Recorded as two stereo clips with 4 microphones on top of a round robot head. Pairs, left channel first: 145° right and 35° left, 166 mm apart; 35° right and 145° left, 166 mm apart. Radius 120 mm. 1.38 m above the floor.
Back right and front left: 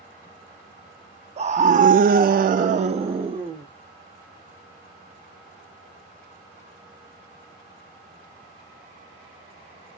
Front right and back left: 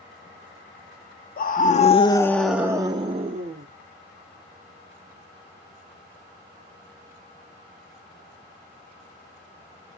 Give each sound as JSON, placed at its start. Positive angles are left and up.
{"t": 1.4, "sound": "a scream", "azimuth_deg": -15, "distance_m": 0.7}